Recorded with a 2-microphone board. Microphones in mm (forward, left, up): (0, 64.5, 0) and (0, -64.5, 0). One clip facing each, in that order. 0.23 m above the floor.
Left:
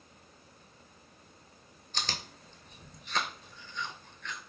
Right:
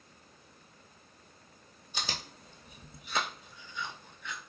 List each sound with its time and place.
1.9 s chewing: 10° right (ahead or behind), 0.6 m